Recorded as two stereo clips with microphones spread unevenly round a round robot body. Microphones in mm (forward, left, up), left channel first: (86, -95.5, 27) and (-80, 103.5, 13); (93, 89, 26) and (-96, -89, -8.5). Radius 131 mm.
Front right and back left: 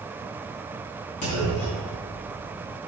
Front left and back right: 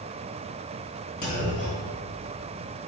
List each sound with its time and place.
1.2 s a clunk: 20° right, 2.5 m